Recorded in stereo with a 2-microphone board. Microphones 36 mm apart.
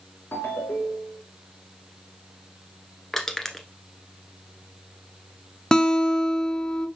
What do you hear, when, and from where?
0.3 s a ringtone: 75° left (ahead or behind), 3 m
3.1 s crushing: 10° left (ahead or behind), 1.2 m
5.7 s a guitar: 20° left (ahead or behind), 0.6 m